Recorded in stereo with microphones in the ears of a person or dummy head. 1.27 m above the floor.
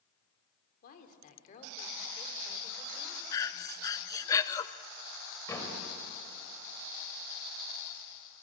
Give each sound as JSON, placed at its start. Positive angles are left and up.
{"t": 0.8, "sound": "a woman speaking", "side_deg": 50, "distance_m": 3.0}
{"t": 3.3, "sound": "breathing", "side_deg": 20, "distance_m": 0.6}
{"t": 5.5, "sound": "a door slam", "side_deg": 15, "distance_m": 4.5}